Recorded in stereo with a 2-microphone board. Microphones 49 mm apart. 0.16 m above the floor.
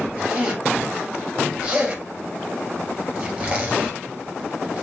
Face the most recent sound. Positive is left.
turn(degrees=-15)  # may be behind; listen again after turning